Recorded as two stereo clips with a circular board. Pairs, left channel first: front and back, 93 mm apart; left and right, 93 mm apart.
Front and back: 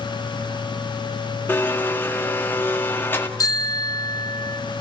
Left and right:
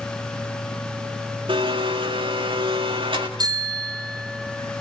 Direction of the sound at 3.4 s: 50° right.